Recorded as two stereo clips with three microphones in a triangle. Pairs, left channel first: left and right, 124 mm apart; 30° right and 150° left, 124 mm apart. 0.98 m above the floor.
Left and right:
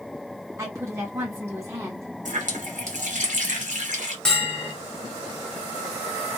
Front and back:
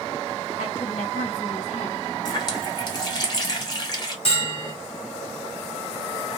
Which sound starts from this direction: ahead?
A bell, at 4.2 s.